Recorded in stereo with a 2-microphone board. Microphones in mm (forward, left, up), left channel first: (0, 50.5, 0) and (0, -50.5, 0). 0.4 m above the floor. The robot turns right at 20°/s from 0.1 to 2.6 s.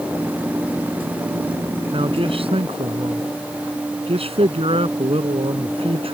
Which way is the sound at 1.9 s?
65° right (ahead or behind).